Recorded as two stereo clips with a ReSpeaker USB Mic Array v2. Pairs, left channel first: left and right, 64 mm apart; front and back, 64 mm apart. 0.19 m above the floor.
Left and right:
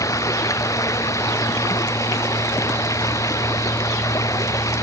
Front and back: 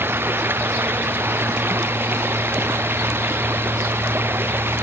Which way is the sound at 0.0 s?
125° left.